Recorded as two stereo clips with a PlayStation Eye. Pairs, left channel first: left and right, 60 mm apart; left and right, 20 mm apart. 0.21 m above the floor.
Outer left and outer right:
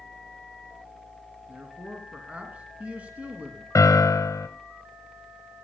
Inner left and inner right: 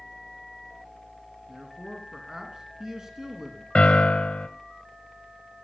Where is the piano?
65° left (ahead or behind), 1.1 m.